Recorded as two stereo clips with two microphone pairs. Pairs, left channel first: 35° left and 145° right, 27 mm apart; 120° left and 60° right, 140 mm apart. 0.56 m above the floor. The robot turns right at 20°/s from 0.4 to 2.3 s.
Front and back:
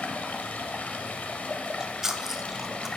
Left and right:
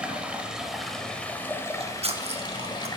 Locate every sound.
0.0 s running water: 25° left, 0.8 m; by 3.0 s 65° left, 0.8 m
1.7 s chewing: 90° right, 0.5 m; by 2.9 s 75° right, 0.5 m